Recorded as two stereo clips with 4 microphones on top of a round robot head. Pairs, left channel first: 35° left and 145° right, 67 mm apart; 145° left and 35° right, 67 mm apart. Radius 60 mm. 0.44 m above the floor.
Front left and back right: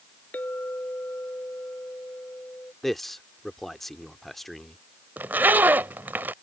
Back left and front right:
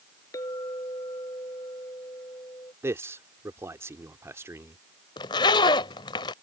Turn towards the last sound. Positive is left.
turn(degrees=150)